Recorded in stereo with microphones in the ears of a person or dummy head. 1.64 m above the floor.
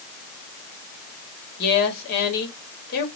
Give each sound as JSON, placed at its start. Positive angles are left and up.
{"t": 1.6, "sound": "a woman speaking", "side_deg": 50, "distance_m": 1.4}